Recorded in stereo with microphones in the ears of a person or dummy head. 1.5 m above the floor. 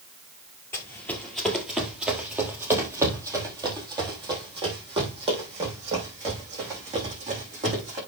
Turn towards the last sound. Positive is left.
turn(degrees=-35)  # may be behind; listen again after turning